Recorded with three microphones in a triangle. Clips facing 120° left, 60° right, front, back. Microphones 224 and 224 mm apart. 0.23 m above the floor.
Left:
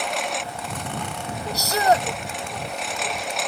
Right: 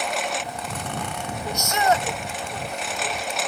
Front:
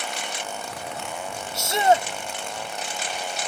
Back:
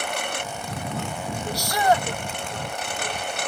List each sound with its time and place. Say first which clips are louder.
0.0 s a lawn mower: even, back 4 dB; 150° right
1.5 s a shout: left 2 dB, front 2 dB; 65° left